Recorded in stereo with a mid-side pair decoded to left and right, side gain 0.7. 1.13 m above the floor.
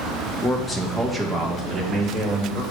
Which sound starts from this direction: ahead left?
A man speaking, at 0.4 s.